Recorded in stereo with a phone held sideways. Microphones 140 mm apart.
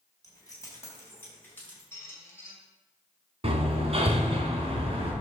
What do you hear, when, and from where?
0.2 s keys jangling: 30° left (ahead or behind), 3.5 m; by 1.8 s 10° left (ahead or behind), 5.5 m
1.9 s a squeak: 20° left (ahead or behind), 2 m
3.4 s hammering: 45° right (ahead or behind), 2.5 m